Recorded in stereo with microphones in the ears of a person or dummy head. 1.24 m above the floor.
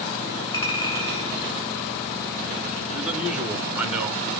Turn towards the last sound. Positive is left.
turn(degrees=-5)  # may be behind; listen again after turning